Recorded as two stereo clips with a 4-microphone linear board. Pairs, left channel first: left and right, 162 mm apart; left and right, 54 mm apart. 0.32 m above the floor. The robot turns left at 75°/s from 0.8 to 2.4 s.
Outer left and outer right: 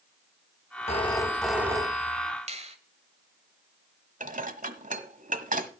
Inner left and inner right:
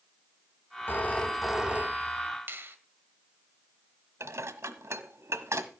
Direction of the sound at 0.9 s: 45° left.